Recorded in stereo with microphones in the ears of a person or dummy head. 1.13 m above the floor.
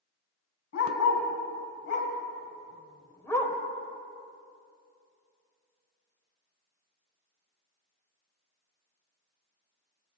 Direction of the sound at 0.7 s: 75° left (ahead or behind).